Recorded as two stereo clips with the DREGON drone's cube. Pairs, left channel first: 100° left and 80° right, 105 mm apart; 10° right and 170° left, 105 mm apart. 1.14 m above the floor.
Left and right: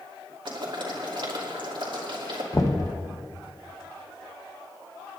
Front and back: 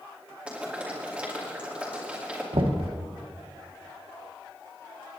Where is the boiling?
110° right, 2.5 m.